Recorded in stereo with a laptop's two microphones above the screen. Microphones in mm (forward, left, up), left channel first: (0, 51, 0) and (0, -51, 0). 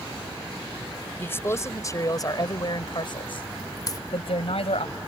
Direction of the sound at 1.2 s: 20° left (ahead or behind).